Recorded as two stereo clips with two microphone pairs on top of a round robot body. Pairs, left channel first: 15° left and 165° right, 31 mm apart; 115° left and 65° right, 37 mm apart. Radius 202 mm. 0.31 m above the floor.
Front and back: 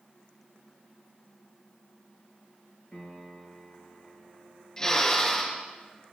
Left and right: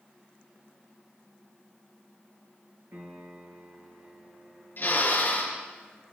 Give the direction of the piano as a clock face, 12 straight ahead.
1 o'clock.